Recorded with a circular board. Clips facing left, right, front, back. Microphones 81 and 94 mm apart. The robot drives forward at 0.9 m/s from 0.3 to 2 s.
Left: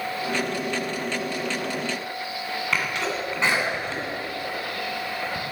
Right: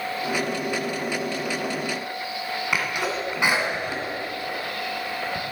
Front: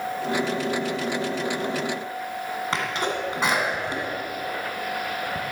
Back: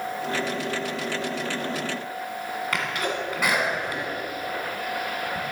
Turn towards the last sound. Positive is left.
turn(degrees=-25)